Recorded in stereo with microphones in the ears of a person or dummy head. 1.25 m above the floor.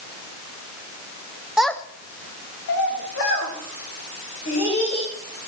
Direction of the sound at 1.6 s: 5° right (ahead or behind).